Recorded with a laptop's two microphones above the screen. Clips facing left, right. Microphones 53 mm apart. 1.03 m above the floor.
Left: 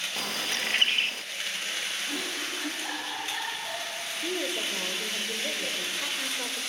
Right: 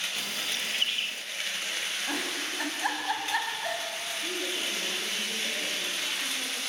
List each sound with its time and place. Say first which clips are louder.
0.2 s a bird: left 2 dB; 60° left (ahead or behind), 0.7 m
2.1 s a giggle: right 1 dB; 85° right, 6.5 m
4.1 s a woman speaking: left 4 dB; 80° left, 4.5 m